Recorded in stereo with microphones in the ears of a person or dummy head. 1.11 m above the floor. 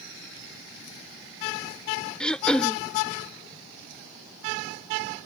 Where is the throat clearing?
5° left (ahead or behind).